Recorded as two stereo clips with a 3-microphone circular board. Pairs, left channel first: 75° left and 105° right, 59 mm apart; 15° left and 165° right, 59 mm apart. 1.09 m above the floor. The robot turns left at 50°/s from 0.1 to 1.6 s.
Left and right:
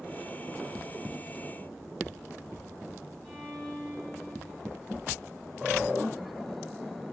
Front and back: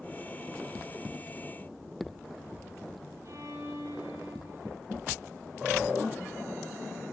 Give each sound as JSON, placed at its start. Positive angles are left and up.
{"t": 3.2, "sound": "a violin", "azimuth_deg": 155, "distance_m": 8.0}